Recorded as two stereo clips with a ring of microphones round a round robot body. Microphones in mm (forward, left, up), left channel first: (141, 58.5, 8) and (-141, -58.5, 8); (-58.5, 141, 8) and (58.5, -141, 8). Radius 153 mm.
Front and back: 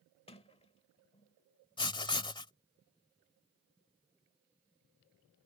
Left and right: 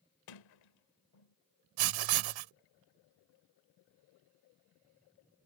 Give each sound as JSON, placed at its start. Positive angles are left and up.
{"t": 0.3, "sound": "a sliding door", "azimuth_deg": 95}
{"t": 1.8, "sound": "writing", "azimuth_deg": -50}